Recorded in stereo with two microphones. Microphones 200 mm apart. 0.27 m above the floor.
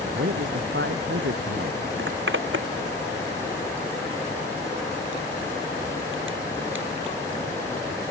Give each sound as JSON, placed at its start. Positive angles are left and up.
{"t": 0.1, "sound": "a man speaking", "side_deg": -70}
{"t": 2.0, "sound": "a zipper", "side_deg": -75}